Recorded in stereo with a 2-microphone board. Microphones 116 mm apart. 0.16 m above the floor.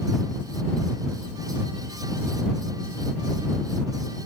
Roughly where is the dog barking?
No dog barking in this recording.